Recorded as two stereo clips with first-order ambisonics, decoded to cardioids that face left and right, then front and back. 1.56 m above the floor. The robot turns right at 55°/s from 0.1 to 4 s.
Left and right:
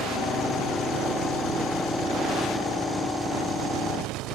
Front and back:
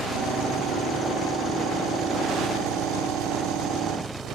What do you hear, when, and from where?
0.0 s an engine running: 20° left; by 4.3 s 125° right